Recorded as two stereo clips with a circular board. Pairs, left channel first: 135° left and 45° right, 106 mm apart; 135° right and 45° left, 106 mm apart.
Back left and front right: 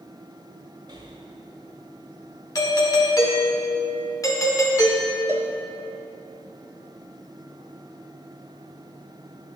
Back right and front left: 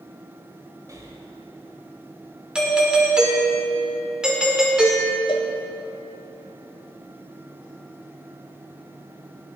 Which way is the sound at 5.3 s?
110° right.